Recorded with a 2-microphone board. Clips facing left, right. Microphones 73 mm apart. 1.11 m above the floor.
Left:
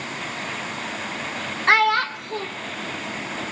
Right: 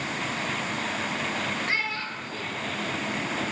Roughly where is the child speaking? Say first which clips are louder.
Left 12 dB; left.